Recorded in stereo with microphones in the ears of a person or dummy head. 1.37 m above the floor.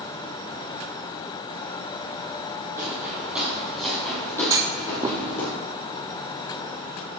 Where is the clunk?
15° right (ahead or behind), 0.6 m.